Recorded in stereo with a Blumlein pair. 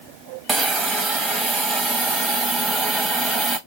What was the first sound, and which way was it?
A hiss, 15° right.